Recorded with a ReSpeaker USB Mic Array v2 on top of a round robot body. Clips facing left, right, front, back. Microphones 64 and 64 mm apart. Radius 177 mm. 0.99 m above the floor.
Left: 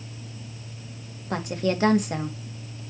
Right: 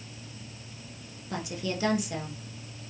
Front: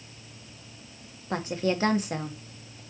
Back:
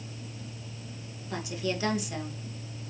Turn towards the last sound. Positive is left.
turn(degrees=50)